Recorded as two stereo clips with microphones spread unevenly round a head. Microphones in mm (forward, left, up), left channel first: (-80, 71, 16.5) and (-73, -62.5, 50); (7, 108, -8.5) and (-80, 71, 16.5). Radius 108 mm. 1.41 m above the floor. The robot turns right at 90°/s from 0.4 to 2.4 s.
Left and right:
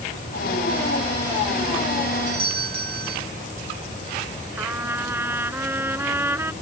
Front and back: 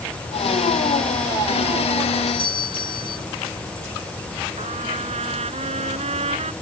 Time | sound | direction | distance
2.3 | a doorbell | 35° right | ?
4.6 | a trumpet | 160° right | ?